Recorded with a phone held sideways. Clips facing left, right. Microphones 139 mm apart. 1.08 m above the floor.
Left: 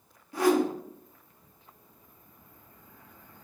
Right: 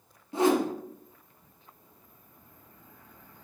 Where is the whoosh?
25° right (ahead or behind), 0.5 m.